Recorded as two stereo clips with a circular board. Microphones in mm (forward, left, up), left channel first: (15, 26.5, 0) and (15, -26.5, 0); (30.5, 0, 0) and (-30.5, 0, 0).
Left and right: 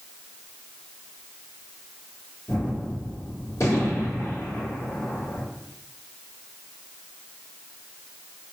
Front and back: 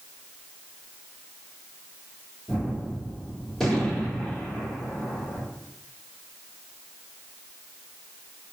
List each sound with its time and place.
2.5 s a gunshot: 85° left, 2.5 m